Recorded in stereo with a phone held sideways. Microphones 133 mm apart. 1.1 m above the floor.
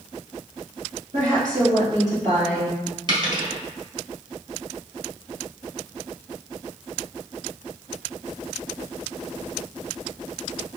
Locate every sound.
1.1 s a woman speaking: 65° right (ahead or behind), 1.6 m; by 2.8 s 55° right (ahead or behind), 3.5 m
3.1 s a dropped coin: 35° right (ahead or behind), 1.7 m